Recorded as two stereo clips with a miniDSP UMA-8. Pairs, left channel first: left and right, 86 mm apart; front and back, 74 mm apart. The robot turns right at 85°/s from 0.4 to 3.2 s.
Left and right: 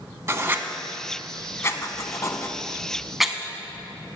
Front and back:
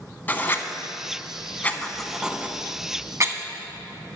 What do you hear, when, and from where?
0.3 s writing: 50° right, 0.5 m; by 3.4 s 175° right, 0.5 m